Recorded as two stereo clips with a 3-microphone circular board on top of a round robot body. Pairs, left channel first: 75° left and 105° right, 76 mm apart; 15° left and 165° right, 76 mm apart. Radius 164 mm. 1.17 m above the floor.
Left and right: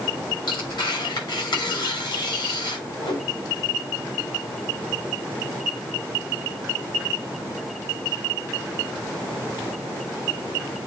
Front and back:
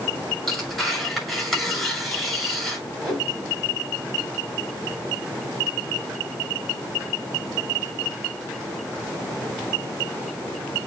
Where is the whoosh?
110° left, 4.5 m.